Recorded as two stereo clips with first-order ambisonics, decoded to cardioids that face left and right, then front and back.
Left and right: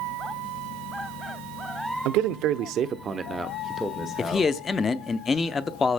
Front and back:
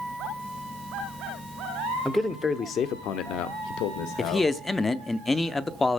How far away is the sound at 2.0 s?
About 1.1 m.